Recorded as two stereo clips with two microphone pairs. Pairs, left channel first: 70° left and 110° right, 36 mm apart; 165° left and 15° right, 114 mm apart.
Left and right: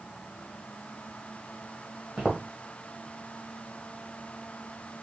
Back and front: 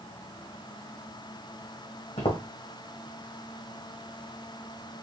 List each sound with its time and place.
2.2 s footsteps: 170° left, 1.9 m